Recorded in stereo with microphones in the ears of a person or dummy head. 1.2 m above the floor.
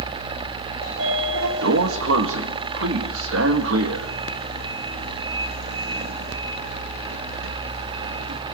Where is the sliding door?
70° right (ahead or behind), 2 m.